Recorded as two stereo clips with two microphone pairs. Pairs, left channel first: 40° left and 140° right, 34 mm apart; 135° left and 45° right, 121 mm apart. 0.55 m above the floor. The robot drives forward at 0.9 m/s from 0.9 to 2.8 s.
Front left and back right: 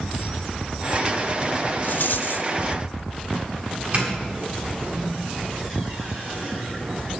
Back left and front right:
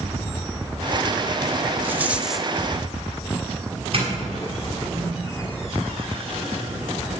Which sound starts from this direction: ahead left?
A rattle, at 1.8 s.